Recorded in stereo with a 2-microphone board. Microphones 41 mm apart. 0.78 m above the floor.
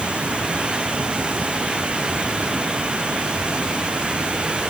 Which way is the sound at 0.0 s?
30° right (ahead or behind).